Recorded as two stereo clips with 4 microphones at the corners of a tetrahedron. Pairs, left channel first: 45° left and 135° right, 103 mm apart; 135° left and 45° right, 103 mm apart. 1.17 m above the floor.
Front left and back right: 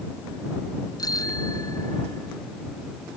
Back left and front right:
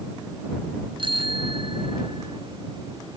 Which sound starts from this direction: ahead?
A bicycle bell, at 1.0 s.